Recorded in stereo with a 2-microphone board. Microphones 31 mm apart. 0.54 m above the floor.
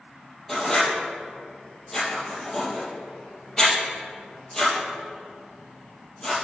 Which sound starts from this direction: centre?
Writing, at 0.5 s.